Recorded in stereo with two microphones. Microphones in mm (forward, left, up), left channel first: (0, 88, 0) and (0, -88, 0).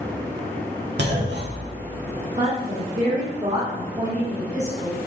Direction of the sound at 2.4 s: 40° right (ahead or behind).